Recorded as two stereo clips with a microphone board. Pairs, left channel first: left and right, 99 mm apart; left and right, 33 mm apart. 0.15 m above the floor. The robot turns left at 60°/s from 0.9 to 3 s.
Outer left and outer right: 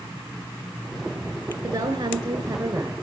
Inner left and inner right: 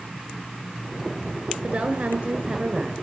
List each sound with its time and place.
1.6 s a woman speaking: 75° right, 1.7 m; by 3.0 s 160° right, 1.7 m